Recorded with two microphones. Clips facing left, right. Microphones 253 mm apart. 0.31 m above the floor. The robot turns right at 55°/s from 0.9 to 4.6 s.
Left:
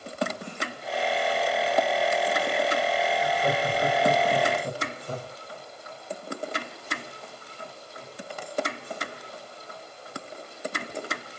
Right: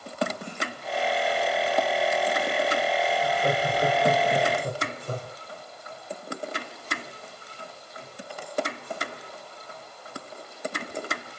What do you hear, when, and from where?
3.2 s laughter: 175° right, 1.9 m; by 5.3 s 100° right, 1.9 m